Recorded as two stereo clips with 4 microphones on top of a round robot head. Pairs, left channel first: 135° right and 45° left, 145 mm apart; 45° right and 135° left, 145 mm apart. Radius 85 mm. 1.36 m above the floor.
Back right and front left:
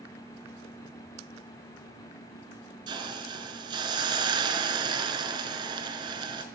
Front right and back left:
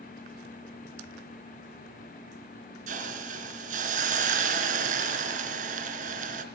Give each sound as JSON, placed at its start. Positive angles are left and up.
{"t": 2.9, "sound": "a hiss", "azimuth_deg": 105, "distance_m": 3.0}